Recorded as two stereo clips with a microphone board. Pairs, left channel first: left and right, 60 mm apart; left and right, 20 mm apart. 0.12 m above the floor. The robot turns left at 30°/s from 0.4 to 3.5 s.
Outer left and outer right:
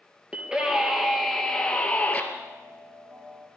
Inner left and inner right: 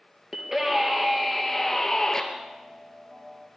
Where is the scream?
155° right, 2.5 m; by 2.2 s 150° left, 2.5 m.